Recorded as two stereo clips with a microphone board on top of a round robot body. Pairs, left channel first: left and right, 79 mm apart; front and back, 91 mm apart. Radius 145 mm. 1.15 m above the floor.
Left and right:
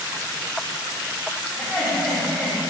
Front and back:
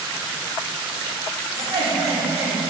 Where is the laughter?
Straight behind, 2.5 m.